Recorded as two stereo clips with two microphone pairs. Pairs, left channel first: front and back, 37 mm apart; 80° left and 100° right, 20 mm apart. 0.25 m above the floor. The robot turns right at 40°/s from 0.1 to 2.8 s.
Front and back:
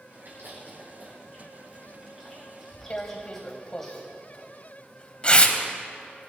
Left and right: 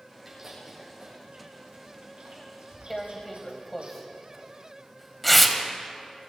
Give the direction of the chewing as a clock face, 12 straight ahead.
6 o'clock.